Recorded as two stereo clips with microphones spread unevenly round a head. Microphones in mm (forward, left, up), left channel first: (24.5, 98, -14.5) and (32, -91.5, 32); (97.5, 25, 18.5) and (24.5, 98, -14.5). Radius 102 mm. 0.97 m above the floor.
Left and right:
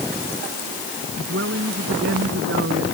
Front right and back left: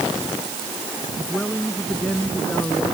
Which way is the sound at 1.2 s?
130° right.